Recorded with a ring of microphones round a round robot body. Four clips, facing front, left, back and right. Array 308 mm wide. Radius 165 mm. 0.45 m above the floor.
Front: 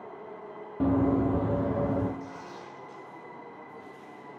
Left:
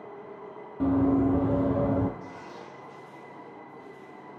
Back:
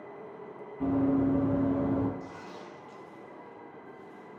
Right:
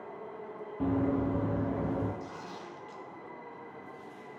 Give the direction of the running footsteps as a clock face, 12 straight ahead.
12 o'clock.